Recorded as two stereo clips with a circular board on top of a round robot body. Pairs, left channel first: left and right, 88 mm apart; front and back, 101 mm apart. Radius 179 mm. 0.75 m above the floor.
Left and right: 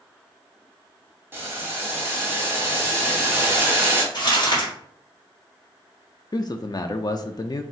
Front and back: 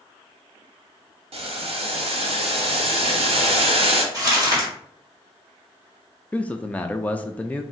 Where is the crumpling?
130° left, 2 m.